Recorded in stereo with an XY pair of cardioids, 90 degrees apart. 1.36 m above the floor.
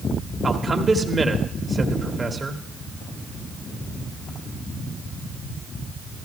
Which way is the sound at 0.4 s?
30° right.